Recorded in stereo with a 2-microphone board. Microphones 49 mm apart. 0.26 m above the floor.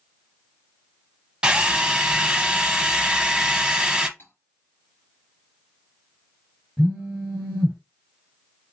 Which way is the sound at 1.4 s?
20° right (ahead or behind).